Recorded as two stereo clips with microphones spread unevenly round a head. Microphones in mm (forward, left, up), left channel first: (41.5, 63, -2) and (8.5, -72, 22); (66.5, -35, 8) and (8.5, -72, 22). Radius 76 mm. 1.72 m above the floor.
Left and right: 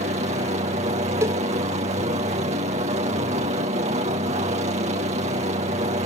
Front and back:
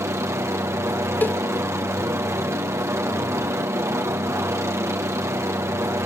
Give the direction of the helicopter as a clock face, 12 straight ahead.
4 o'clock.